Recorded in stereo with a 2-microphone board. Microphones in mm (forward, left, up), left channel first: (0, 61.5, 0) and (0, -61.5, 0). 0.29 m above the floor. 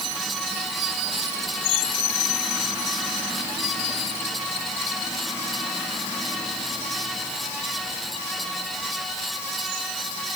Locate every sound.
Only background noise.